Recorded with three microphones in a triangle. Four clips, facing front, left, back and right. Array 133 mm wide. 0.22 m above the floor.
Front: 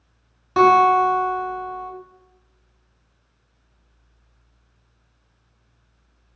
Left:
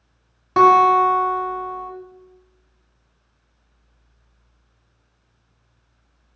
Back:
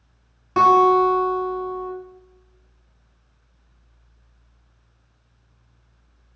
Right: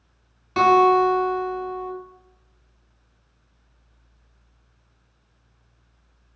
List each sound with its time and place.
0.6 s a guitar: 80° left, 0.7 m